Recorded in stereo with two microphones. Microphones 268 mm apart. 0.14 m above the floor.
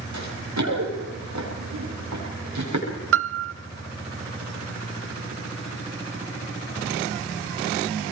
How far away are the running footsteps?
About 8 m.